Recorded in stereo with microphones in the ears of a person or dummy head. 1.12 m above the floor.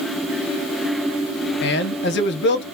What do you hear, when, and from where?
1.6 s a man speaking: 50° left (ahead or behind), 0.6 m